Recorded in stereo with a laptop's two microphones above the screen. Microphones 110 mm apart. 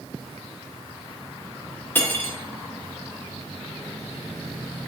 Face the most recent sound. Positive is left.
turn(degrees=20)  # may be behind; listen again after turning